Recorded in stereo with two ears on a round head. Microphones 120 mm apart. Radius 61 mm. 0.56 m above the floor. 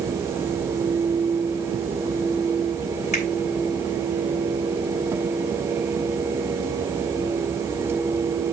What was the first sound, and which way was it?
A finger snap, 60° left (ahead or behind).